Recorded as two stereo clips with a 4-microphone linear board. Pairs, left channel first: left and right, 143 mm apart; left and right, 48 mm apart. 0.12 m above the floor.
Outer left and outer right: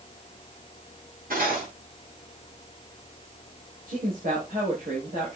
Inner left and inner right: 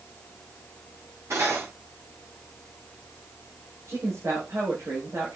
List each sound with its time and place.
1.3 s cutlery clinking: 80° right, 9.5 m
3.9 s a woman speaking: 80° right, 7 m